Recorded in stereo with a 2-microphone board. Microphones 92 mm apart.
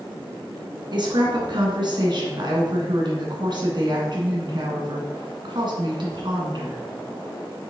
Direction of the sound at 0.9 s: 55° right (ahead or behind).